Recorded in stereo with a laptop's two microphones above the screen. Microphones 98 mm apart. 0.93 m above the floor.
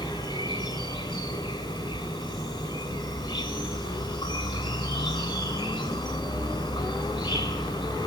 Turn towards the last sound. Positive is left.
turn(degrees=45)  # may be behind; listen again after turning